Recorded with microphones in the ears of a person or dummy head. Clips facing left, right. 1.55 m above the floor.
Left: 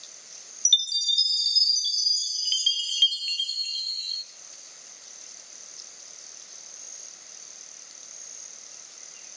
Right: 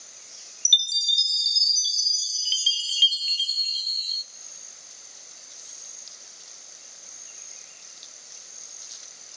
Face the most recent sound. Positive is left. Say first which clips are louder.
# right 3 dB
turn(degrees=-5)  # may be behind; listen again after turning